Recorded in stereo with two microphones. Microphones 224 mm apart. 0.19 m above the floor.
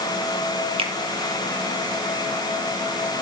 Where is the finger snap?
25° right (ahead or behind), 3.5 m.